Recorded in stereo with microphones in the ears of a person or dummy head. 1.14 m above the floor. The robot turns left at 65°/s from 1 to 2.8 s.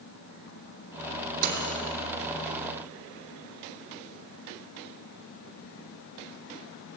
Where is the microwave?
35° right (ahead or behind), 2.5 m; by 1.8 s 65° right (ahead or behind), 2.5 m.